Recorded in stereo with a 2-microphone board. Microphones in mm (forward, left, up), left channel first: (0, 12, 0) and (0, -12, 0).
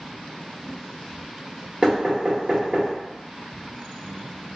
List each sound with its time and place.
1.8 s knocking: 40° right (ahead or behind), 1.0 m